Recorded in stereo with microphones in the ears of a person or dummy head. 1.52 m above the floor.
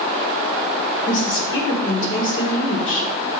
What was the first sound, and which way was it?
A woman speaking, 75° left (ahead or behind).